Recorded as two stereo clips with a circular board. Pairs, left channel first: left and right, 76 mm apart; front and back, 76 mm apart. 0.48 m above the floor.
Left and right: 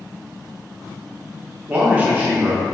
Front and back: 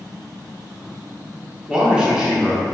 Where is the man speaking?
120° right, 0.7 m.